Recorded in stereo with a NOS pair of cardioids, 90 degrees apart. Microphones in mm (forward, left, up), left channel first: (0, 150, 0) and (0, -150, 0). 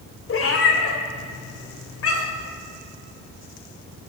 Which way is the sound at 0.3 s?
50° left.